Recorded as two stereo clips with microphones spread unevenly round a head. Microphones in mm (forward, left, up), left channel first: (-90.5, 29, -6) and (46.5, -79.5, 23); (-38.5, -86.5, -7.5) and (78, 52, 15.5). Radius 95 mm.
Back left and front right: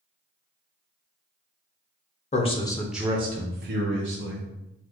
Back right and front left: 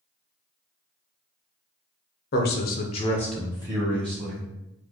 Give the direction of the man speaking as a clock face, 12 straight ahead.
5 o'clock.